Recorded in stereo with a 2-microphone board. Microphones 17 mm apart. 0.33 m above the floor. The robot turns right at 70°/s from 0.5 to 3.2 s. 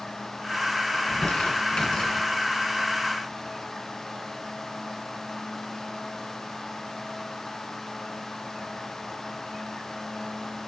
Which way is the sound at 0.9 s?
55° left (ahead or behind).